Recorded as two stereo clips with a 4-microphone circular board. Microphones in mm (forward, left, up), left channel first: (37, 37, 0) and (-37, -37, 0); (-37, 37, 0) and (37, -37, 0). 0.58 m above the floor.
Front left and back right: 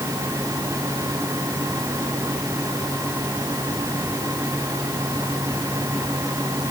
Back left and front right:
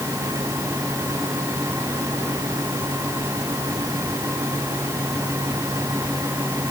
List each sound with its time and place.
Only background noise.